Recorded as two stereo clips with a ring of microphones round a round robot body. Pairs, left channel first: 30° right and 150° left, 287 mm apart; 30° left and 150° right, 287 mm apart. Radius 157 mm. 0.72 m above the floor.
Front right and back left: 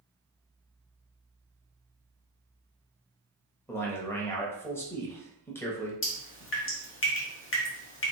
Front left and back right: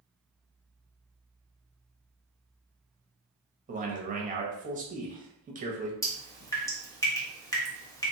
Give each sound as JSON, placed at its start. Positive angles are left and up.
{"t": 3.7, "sound": "a man speaking", "azimuth_deg": -105, "distance_m": 1.1}
{"t": 6.0, "sound": "dripping", "azimuth_deg": -45, "distance_m": 1.3}